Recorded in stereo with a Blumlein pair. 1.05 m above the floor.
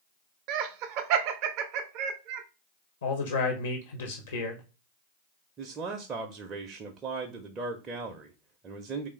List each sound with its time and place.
0.5 s laughter: 40° right, 0.5 m
3.0 s a man speaking: 70° left, 0.8 m
5.6 s a man speaking: 25° right, 0.5 m